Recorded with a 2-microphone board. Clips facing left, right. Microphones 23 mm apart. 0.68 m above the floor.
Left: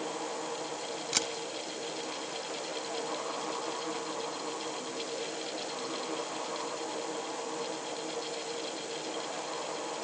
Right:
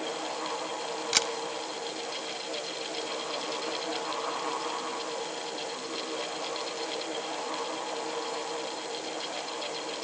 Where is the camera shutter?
25° right (ahead or behind), 1.1 m.